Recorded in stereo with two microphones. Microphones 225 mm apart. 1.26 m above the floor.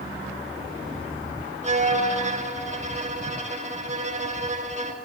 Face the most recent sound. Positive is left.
turn(degrees=-30)  # may be behind; listen again after turning